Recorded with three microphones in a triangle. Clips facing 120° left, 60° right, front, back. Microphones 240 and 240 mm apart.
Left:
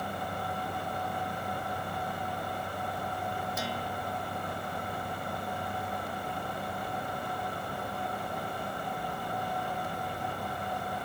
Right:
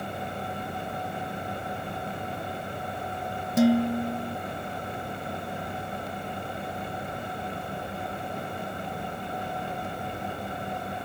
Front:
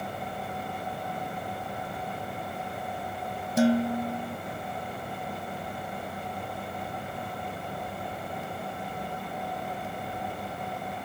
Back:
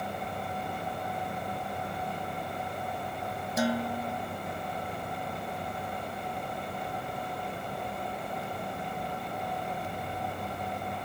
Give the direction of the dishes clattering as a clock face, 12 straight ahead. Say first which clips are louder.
Right 16 dB, front 7 dB; 2 o'clock.